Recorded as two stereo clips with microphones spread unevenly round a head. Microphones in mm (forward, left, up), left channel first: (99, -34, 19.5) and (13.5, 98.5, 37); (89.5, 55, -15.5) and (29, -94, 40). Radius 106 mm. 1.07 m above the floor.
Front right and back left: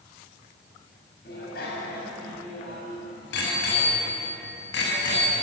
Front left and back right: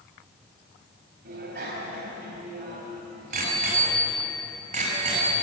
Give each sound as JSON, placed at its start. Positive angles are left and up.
{"t": 1.2, "sound": "a bicycle bell", "azimuth_deg": -105, "distance_m": 5.0}